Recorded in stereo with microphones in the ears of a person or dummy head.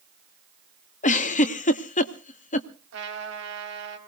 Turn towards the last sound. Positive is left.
turn(degrees=-85)